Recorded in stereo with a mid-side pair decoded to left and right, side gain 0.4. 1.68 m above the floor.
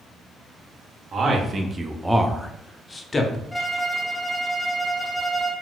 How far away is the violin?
About 0.7 m.